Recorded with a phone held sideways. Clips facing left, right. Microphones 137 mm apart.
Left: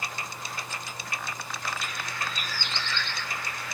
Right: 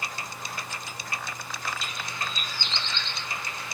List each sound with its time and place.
1.8 s a bird: 20° right (ahead or behind), 0.5 m